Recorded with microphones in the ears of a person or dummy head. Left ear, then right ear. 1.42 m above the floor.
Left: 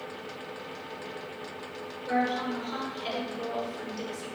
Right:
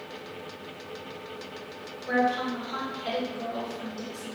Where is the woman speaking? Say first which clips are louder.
Right 3 dB; 55° left (ahead or behind), 1.2 m.